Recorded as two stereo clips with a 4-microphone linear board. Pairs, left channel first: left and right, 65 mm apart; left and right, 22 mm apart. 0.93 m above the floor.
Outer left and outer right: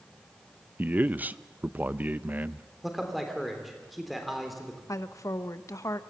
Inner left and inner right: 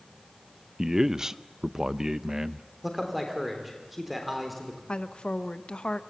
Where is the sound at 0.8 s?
25° right (ahead or behind), 0.5 m.